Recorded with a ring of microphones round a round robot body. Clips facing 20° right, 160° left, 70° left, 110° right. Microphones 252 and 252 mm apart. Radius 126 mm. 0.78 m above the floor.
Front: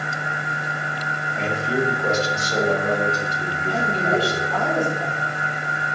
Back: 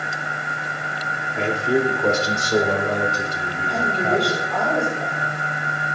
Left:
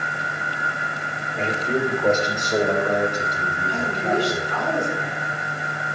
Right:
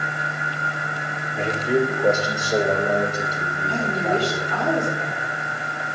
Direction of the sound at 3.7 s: 110° right.